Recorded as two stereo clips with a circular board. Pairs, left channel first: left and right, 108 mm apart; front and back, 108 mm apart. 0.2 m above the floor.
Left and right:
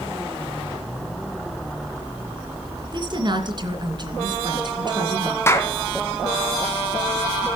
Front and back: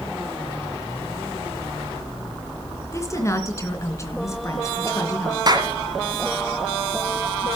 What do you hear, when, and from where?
2.9 s a woman speaking: 55° right, 2.5 m
5.5 s a clap: 150° left, 1.9 m